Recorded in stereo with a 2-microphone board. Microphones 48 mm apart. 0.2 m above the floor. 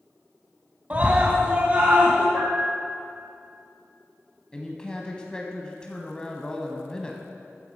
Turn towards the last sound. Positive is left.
turn(degrees=15)  # may be behind; listen again after turning